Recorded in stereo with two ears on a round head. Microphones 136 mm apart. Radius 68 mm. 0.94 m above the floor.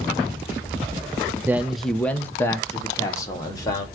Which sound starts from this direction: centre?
A man speaking, at 1.5 s.